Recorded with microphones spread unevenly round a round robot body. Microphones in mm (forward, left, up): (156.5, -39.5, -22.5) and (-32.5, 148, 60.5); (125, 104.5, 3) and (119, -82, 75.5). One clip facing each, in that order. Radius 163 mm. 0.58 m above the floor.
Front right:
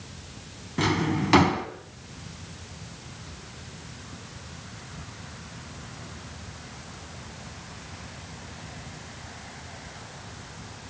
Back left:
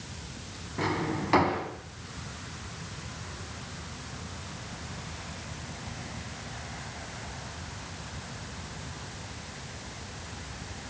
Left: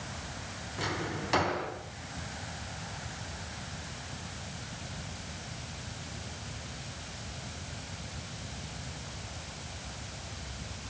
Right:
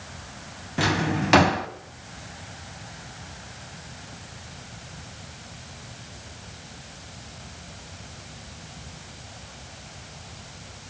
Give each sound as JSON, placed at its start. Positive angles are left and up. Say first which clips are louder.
{"t": 0.8, "sound": "a drawer", "louder": "front right 5 dB, right 11 dB", "azimuth_deg": -100, "distance_m": 1.3}